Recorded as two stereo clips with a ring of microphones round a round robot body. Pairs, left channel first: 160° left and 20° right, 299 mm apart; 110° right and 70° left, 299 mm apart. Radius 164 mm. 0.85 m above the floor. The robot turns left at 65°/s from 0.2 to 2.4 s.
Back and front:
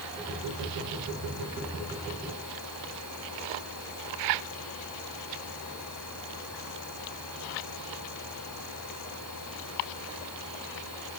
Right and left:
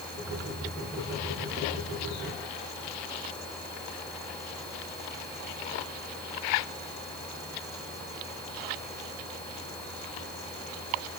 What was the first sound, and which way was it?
Only background noise.